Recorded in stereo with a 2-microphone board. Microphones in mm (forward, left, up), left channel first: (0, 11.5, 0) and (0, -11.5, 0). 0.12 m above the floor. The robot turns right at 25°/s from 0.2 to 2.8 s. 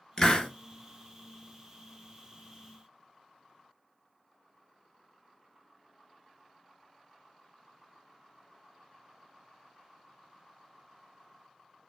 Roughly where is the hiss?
Left.